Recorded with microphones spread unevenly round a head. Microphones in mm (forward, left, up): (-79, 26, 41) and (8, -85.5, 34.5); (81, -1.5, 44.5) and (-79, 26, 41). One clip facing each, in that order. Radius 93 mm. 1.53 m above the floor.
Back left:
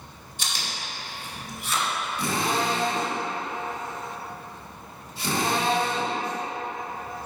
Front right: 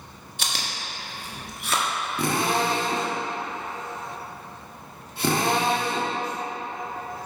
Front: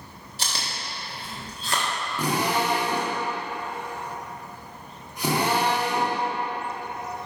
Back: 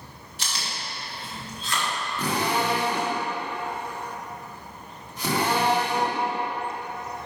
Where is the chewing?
65° right, 1.3 m.